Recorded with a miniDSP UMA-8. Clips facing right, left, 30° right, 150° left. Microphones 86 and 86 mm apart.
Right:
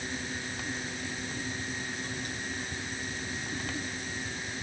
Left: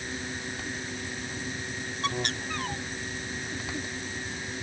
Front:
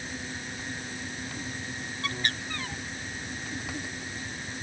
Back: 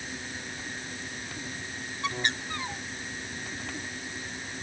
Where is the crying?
No crying in this recording.